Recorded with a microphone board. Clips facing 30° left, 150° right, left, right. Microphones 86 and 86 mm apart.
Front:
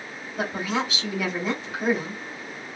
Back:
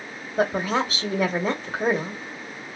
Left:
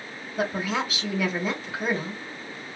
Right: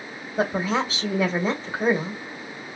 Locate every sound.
0.4 s a woman speaking: 130° right, 1.0 m